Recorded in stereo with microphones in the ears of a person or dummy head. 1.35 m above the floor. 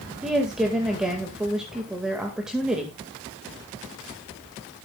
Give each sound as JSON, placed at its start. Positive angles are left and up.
{"t": 0.2, "sound": "a woman speaking", "side_deg": 0, "distance_m": 1.8}